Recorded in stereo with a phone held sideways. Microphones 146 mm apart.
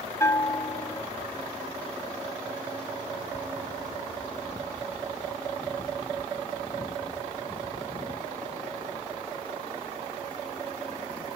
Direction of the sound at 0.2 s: 20° left (ahead or behind).